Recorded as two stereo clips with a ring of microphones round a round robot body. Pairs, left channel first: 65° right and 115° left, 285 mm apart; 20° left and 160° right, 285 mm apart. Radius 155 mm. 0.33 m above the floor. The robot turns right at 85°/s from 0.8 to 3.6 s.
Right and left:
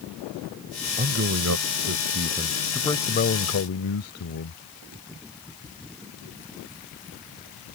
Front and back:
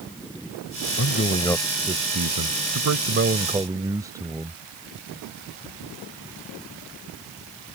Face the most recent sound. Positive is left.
turn(degrees=-80)